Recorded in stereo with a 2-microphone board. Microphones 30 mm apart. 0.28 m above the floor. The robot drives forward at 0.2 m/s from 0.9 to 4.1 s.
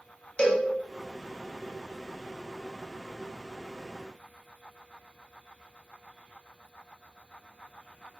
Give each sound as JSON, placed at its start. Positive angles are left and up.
{"t": 0.4, "sound": "a cowbell", "side_deg": 40, "distance_m": 1.0}